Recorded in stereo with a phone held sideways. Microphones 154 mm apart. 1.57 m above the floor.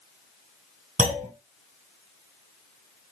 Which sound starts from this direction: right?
A clunk, at 1.0 s.